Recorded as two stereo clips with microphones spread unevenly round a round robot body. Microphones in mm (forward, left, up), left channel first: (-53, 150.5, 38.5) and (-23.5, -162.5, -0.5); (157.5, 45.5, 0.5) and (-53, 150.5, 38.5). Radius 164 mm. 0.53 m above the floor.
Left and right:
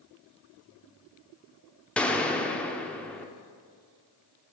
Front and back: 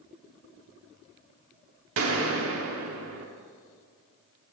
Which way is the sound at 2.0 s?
175° right.